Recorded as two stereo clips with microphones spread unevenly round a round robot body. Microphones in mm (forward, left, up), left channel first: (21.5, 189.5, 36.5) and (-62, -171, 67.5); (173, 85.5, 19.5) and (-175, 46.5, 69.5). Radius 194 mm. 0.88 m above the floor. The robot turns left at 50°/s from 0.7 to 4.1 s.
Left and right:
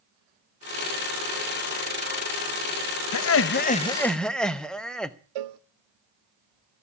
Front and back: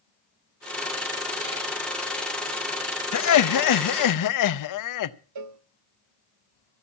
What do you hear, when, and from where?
3.1 s laughter: 40° left, 0.8 m; by 5.2 s 10° right, 0.8 m
5.3 s a cowbell: 130° right, 0.7 m